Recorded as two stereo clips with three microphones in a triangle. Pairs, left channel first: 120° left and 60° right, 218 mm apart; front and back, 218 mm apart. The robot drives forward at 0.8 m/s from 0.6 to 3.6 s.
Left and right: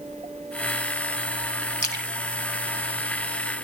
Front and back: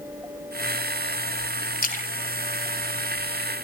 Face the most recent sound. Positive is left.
turn(degrees=-105)